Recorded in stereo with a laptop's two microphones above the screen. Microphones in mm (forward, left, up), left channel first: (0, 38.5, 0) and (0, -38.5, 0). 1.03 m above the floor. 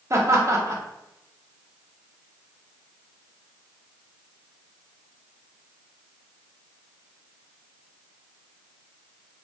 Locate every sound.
0.1 s laughter: 40° right (ahead or behind), 0.8 m